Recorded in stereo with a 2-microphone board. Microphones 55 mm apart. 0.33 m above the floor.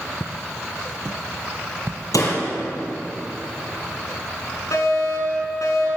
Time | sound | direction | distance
0.2 | footsteps | 5° left (ahead or behind) | 1.3 m
2.1 | a door slam | 85° left | 5.5 m
4.7 | a fire alarm | 70° left (ahead or behind) | 5.5 m